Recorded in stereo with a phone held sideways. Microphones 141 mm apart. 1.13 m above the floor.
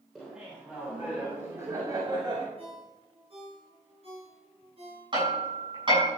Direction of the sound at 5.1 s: 35° right (ahead or behind).